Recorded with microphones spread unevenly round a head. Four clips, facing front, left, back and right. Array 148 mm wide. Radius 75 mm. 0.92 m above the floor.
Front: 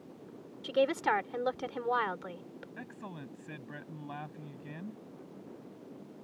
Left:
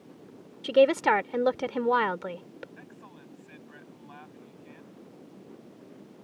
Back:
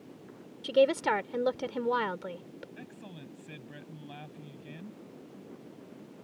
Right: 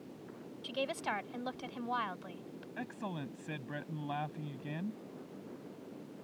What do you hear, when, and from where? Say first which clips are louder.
0.6 s a woman speaking: left 17 dB, back 4 dB; 110° left
2.8 s a man speaking: right 7 dB, front 2 dB; 75° right